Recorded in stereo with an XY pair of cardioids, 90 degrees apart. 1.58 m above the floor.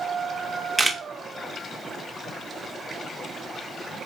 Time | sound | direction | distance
0.8 | a camera shutter | 20° right | 0.5 m